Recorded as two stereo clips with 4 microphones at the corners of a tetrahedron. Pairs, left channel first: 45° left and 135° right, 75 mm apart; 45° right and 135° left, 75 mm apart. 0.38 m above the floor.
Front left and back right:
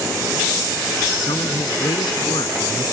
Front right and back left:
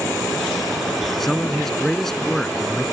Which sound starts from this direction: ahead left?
A man speaking, at 1.2 s.